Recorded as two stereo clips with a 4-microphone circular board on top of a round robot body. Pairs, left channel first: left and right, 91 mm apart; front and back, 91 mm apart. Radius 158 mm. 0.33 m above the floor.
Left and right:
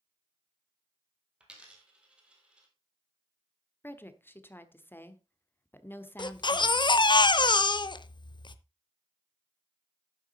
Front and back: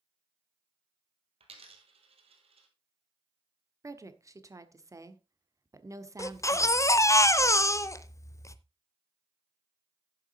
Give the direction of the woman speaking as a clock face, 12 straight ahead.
7 o'clock.